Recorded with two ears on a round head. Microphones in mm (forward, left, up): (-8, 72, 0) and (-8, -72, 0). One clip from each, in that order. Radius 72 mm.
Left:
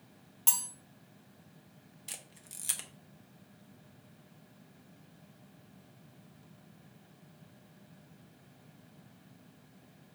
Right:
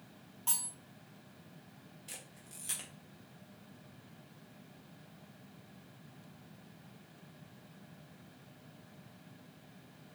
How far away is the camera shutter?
About 0.8 m.